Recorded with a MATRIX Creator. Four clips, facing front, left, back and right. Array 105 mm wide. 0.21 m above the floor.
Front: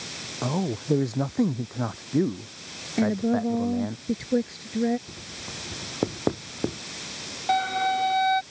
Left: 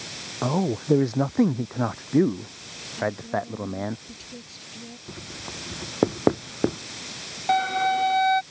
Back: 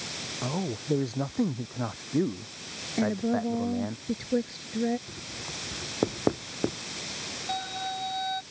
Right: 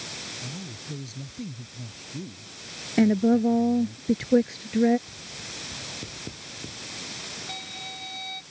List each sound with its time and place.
0.4 s a man speaking: 80° left; by 4.0 s 90° left
3.0 s a woman speaking: 80° right
5.1 s writing: 95° left
7.5 s a violin: 60° left